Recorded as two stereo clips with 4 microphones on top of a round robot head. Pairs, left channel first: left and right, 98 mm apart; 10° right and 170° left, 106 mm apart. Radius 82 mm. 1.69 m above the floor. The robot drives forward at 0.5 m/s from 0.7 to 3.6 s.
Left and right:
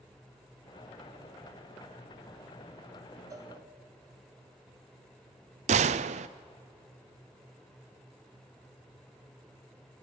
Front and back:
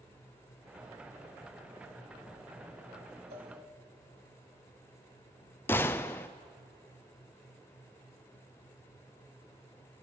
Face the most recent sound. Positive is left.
turn(degrees=-85)